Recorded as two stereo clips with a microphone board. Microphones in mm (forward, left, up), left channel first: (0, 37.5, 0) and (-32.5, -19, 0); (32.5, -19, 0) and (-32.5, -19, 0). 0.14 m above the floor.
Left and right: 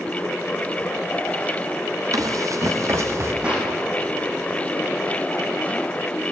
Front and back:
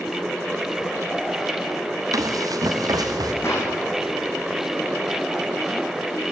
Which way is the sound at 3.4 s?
45° right.